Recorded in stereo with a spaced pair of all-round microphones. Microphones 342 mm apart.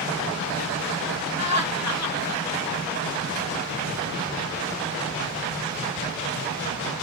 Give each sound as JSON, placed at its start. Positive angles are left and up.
{"t": 1.4, "sound": "laughter", "side_deg": 50, "distance_m": 1.0}